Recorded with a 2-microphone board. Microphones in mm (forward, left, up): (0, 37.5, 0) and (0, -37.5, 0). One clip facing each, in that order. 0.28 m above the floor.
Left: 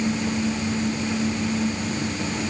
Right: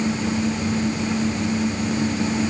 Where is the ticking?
No ticking in this recording.